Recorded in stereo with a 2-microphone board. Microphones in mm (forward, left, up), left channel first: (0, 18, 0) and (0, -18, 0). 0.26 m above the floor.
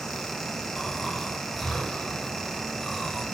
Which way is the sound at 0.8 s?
5° left (ahead or behind).